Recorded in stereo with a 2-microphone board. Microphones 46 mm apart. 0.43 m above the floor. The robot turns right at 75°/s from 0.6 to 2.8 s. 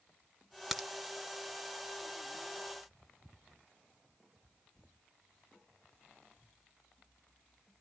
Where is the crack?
5° right (ahead or behind), 0.7 m; by 0.9 s 5° left (ahead or behind), 0.7 m.